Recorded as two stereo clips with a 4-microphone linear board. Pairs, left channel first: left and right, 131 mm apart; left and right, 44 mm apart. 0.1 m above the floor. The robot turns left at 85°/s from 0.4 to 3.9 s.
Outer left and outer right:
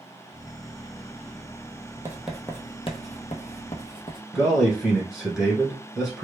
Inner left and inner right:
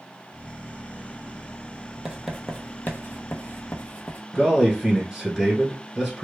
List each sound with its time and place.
2.0 s writing: 20° right (ahead or behind), 0.6 m; by 4.2 s 40° left (ahead or behind), 0.6 m
4.3 s a man speaking: 5° right (ahead or behind), 1.2 m